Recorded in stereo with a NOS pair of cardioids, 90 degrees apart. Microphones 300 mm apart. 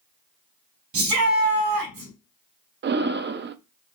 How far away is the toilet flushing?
No toilet flushing in this recording.